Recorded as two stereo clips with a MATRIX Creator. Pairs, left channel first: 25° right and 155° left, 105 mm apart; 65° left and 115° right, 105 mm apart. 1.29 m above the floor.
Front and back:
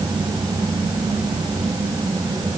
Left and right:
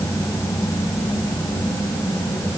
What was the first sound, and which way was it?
Only background noise.